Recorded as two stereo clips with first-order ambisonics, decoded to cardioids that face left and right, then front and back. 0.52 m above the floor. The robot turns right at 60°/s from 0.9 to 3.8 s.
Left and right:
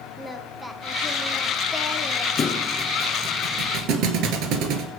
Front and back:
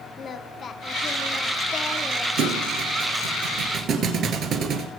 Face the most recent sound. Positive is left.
turn(degrees=-125)